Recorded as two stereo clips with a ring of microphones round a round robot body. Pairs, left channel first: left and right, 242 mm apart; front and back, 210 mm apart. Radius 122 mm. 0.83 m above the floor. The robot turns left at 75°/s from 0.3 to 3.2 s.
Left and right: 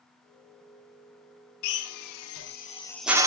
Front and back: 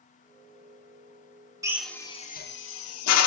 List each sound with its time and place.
1.6 s a drill: 105° left, 1.6 m; by 3.3 s 15° right, 1.6 m